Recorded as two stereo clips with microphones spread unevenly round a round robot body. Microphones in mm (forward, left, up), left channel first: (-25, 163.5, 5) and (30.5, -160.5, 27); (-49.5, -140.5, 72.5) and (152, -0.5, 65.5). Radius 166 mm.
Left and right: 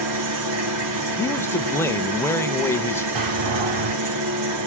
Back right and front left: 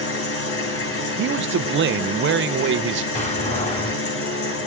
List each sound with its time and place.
0.0 s an engine running: 115° right, 2.5 m
1.2 s a man speaking: 25° left, 0.7 m
3.1 s a door slam: 85° right, 3.5 m